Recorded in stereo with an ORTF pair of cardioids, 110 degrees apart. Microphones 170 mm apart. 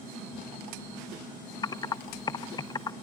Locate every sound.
1.6 s typing on a keyboard: 25° left, 1.1 m